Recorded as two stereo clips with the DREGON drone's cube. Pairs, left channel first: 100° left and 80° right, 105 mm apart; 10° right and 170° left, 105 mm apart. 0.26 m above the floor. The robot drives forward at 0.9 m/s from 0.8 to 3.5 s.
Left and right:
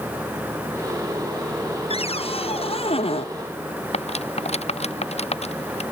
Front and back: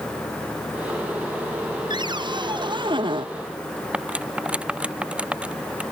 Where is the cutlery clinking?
90° left.